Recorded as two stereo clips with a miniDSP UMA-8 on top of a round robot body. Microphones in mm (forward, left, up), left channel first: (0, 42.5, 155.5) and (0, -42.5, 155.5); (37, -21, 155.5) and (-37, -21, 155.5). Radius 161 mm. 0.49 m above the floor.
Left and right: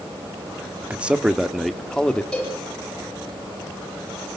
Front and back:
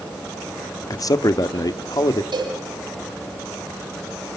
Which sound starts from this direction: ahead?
A man speaking, at 0.9 s.